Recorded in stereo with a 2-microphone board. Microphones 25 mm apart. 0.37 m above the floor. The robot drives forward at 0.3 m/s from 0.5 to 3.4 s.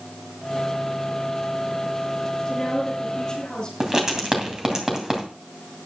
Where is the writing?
25° right (ahead or behind), 2.5 m.